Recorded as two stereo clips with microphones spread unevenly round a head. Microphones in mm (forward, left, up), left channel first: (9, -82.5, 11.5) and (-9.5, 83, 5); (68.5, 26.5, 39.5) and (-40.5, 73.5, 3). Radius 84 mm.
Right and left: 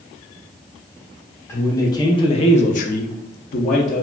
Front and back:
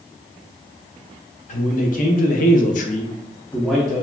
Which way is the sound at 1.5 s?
10° right.